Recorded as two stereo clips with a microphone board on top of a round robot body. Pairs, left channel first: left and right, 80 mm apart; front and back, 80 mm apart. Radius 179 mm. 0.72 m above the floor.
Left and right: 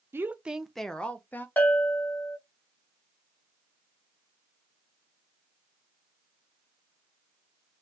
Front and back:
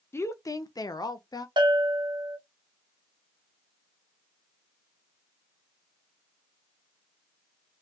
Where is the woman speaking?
45° right, 0.7 m; by 1.5 s 30° left, 1.0 m.